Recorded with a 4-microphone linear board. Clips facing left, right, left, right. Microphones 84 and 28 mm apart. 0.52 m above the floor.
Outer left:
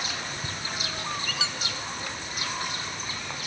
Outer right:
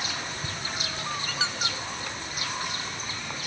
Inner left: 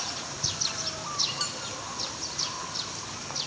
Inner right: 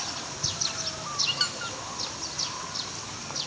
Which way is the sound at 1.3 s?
40° right (ahead or behind).